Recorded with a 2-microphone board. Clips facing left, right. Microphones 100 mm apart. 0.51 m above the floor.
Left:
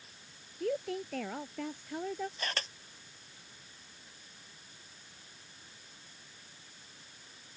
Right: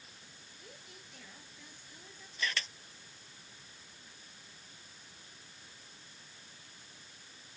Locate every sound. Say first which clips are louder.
0.6 s a woman speaking: left 24 dB; 70° left (ahead or behind)
2.4 s a camera shutter: even; 45° left (ahead or behind)